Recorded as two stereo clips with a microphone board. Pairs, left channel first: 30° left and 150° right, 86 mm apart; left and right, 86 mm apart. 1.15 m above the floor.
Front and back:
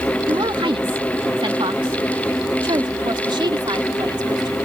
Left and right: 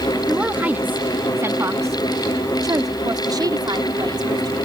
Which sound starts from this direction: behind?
A woman speaking, at 0.3 s.